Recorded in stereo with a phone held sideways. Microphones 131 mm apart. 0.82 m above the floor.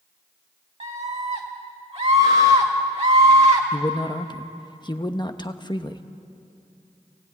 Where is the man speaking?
35° left (ahead or behind), 1.0 m.